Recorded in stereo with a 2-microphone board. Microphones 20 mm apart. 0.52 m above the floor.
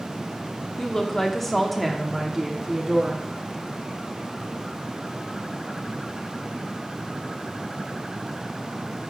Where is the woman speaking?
25° left (ahead or behind), 1.1 m; by 3.3 s 20° right (ahead or behind), 1.3 m.